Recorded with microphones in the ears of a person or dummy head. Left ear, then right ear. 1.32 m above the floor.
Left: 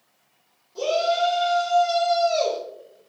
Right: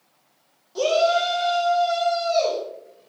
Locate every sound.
0.8 s a shout: 30° right (ahead or behind), 0.6 m; by 2.6 s 40° left (ahead or behind), 0.9 m